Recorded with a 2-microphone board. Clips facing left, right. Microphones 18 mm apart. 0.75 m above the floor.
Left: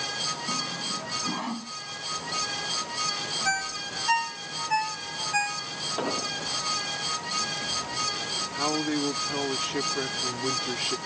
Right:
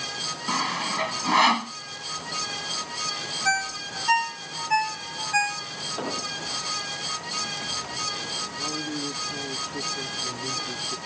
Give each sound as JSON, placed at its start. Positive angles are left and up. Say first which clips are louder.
{"t": 0.5, "sound": "sawing", "louder": "right 4 dB", "side_deg": -70}
{"t": 3.5, "sound": "a ringtone", "louder": "right 6 dB", "side_deg": -10}
{"t": 6.0, "sound": "an explosion", "louder": "left 2 dB", "side_deg": 15}
{"t": 8.6, "sound": "a man speaking", "louder": "left 3 dB", "side_deg": 65}